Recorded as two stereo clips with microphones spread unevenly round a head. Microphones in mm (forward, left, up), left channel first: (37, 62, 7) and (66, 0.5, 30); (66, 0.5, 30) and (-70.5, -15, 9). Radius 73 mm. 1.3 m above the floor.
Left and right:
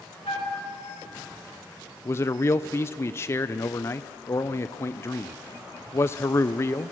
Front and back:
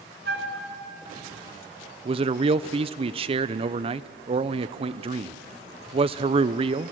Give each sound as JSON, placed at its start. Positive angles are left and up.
{"t": 0.2, "sound": "a flute", "azimuth_deg": 170, "distance_m": 3.0}
{"t": 2.0, "sound": "a man speaking", "azimuth_deg": 150, "distance_m": 0.7}